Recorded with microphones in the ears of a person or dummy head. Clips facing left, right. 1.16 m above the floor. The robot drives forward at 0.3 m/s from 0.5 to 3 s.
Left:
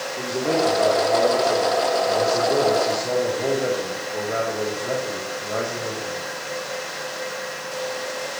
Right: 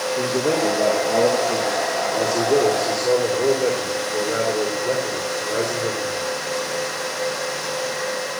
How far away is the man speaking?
About 3.5 m.